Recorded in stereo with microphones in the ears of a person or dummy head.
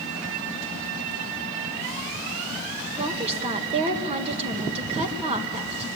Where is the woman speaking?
35° right (ahead or behind), 1.9 m.